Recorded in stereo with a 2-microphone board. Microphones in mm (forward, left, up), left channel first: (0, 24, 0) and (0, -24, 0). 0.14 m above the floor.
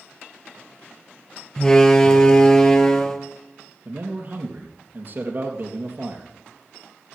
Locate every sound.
1.6 s a door slam: 15° left (ahead or behind), 1.8 m
3.9 s a man speaking: 45° right (ahead or behind), 3.5 m